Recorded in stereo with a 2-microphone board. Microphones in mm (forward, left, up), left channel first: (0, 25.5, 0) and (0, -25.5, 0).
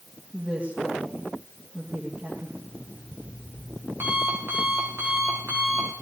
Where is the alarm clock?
50° right (ahead or behind), 9.5 m.